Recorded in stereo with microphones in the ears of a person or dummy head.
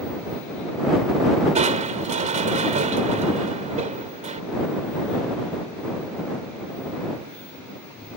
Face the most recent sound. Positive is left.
turn(degrees=-40)  # may be behind; listen again after turning